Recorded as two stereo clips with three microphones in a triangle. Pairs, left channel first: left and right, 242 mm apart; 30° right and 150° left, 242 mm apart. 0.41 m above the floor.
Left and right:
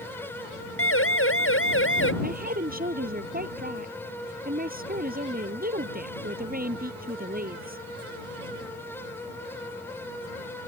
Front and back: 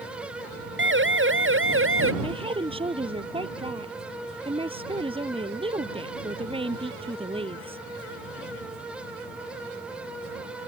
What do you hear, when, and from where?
0.8 s a siren: 115° left; by 2.1 s 120° left
2.2 s a woman speaking: 140° right